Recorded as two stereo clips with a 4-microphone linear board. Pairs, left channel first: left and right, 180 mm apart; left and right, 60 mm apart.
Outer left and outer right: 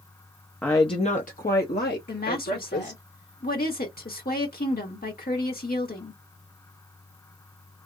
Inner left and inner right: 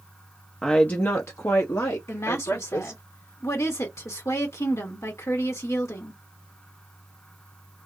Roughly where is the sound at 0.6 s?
Centre.